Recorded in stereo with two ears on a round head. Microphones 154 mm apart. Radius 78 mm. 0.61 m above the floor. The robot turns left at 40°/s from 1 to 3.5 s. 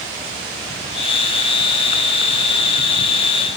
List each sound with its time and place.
Only background noise.